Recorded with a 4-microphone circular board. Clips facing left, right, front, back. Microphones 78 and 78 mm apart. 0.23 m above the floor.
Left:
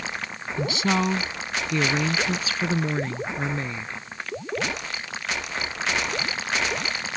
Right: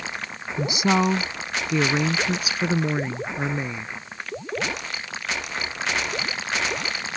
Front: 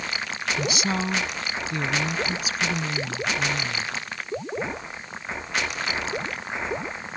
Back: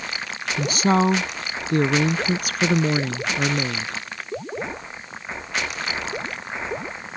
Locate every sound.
0.6 s a woman speaking: 155° right; by 4.0 s 165° right